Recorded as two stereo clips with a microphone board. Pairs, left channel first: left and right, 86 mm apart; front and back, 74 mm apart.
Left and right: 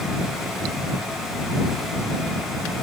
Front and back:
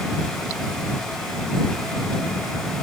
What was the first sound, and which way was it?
Only background noise.